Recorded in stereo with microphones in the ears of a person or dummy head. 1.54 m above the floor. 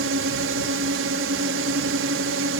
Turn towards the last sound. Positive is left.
turn(degrees=-65)  # may be behind; listen again after turning